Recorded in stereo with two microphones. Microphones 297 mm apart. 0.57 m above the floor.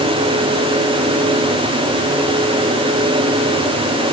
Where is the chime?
No chime in this recording.